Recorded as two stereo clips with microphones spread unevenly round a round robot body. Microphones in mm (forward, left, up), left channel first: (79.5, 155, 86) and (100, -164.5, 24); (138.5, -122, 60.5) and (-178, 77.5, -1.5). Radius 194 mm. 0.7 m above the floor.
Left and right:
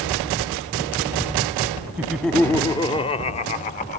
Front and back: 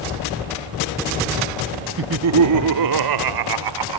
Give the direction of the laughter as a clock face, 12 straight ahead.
5 o'clock.